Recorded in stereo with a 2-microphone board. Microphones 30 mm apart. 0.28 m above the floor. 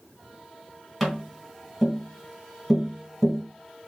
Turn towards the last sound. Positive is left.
turn(degrees=5)  # may be behind; listen again after turning